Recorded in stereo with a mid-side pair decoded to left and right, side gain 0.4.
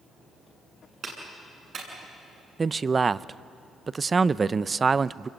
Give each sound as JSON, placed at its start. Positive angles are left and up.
{"t": 1.0, "sound": "a clap", "azimuth_deg": -60, "distance_m": 8.5}
{"t": 2.6, "sound": "a man speaking", "azimuth_deg": -35, "distance_m": 0.6}